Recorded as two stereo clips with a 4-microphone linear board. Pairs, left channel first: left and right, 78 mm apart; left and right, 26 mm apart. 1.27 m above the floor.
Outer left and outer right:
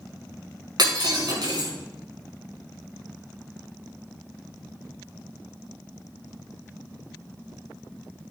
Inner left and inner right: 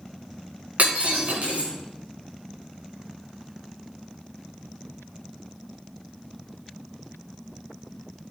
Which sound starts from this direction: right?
Breaking glass, at 0.8 s.